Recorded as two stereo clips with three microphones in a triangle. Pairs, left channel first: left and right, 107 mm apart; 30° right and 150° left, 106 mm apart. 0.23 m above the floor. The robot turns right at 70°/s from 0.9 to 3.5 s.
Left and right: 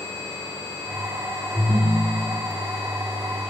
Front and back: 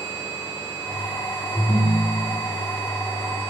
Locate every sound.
1.5 s a ringtone: 150° left, 2.0 m; by 2.4 s 145° right, 2.0 m